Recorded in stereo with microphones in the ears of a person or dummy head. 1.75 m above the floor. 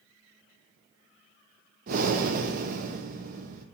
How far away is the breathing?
About 1.0 m.